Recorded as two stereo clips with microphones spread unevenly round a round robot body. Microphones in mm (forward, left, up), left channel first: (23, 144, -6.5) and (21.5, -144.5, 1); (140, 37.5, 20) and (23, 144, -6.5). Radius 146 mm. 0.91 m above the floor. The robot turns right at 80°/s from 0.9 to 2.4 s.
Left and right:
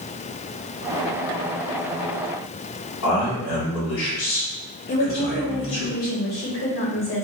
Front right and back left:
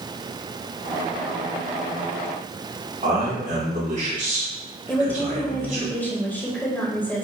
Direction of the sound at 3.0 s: 115° left.